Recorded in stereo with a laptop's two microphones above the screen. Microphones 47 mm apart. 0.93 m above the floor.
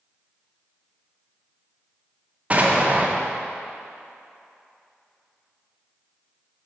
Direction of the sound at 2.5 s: 30° right (ahead or behind).